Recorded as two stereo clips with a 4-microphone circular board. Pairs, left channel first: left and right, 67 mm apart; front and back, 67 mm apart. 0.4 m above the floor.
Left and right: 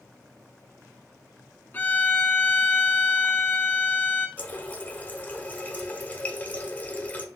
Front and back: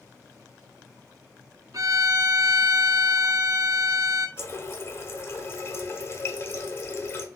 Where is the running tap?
35° left, 0.8 m.